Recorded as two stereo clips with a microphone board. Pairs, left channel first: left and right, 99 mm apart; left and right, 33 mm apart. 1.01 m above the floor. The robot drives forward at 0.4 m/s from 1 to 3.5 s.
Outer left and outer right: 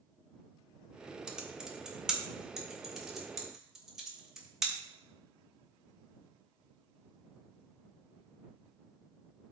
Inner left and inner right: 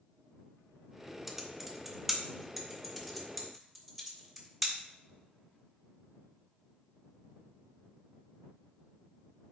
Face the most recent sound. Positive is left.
turn(degrees=-5)  # may be behind; listen again after turning